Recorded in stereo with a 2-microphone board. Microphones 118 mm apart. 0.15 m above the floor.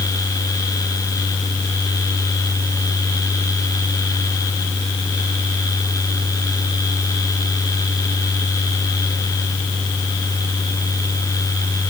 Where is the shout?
I don't hear a shout.